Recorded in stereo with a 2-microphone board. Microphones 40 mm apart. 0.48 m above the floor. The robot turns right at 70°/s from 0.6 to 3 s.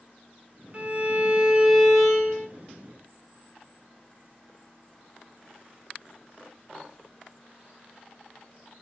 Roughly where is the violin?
Behind right.